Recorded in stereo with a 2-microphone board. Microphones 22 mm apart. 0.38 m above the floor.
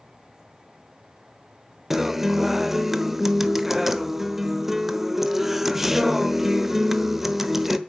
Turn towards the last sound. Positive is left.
turn(degrees=-10)  # may be behind; listen again after turning